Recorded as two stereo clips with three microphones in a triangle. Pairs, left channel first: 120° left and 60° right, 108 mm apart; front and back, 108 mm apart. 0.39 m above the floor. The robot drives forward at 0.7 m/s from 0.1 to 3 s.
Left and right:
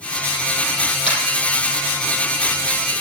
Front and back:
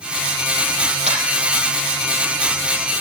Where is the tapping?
160° left, 5.5 m.